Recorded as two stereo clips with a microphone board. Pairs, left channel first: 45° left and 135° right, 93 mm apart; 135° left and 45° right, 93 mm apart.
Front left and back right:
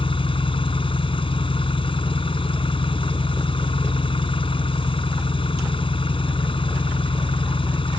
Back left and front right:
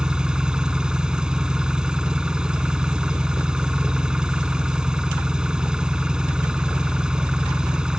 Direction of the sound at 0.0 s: 35° left.